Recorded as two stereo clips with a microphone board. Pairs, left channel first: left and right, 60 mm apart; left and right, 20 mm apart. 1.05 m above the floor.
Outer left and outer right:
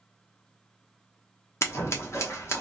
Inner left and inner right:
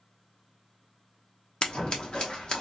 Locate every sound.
1.6 s scissors: 50° left (ahead or behind), 1.0 m